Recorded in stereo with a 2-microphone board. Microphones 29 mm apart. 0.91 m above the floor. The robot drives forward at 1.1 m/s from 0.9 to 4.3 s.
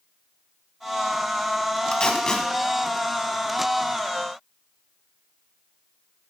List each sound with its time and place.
1.9 s tape being pulled: 35° left (ahead or behind), 0.8 m; by 2.5 s 25° left (ahead or behind), 1.1 m